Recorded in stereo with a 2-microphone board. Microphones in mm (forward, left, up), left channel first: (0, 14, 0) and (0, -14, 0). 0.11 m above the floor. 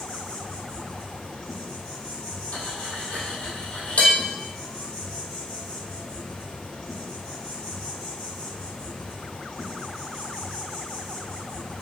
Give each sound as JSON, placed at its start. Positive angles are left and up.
{"t": 0.0, "sound": "an insect", "side_deg": 60, "distance_m": 1.0}
{"t": 2.5, "sound": "cutlery clinking", "side_deg": 65, "distance_m": 1.8}